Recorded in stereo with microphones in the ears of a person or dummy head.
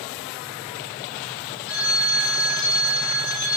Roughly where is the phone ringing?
Left.